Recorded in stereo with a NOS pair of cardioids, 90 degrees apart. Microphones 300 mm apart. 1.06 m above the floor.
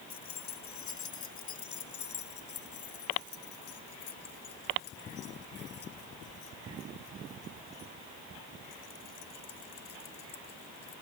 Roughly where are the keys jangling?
Ahead left.